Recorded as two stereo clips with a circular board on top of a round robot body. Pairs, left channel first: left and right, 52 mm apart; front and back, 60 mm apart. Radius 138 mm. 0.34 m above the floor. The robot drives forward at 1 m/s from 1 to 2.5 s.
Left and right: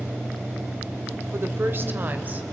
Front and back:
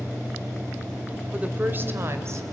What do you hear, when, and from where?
1.3 s a woman speaking: 115° right, 1.5 m; by 2.4 s 145° right, 2 m